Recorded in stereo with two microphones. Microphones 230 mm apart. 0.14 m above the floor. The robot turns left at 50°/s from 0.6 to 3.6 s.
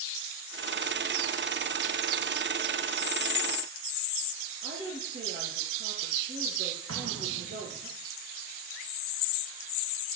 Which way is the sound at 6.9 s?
85° right.